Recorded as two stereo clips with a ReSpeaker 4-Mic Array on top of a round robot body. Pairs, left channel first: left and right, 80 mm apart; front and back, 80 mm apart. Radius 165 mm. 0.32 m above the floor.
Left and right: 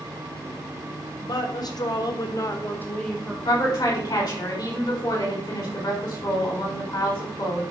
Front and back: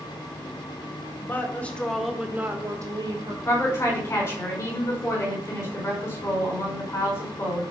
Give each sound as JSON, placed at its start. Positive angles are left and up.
{"t": 1.2, "sound": "a woman speaking", "azimuth_deg": 60, "distance_m": 2.5}
{"t": 3.5, "sound": "a woman speaking", "azimuth_deg": 60, "distance_m": 5.0}